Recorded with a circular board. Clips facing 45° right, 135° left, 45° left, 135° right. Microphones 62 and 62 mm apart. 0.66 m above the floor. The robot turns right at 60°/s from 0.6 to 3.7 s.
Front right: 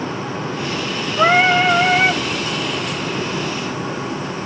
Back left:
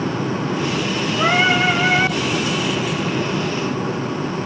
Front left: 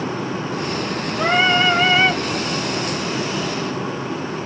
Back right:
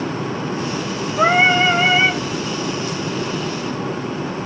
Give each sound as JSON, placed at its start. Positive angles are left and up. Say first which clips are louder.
{"t": 1.2, "sound": "singing", "louder": "front right 4 dB, back right 3 dB", "azimuth_deg": -100, "distance_m": 3.0}